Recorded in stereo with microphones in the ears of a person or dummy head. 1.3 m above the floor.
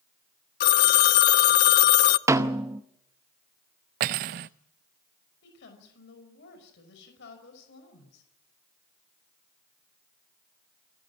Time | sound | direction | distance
0.6 | a phone ringing | 60° left (ahead or behind) | 0.7 m
2.3 | a snare drum | 15° right (ahead or behind) | 0.9 m
4.0 | cutlery clinking | 40° right (ahead or behind) | 0.6 m
5.4 | a woman speaking | 75° left (ahead or behind) | 5.5 m